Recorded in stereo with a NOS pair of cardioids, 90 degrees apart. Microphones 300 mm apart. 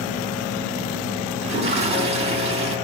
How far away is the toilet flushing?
About 6.5 m.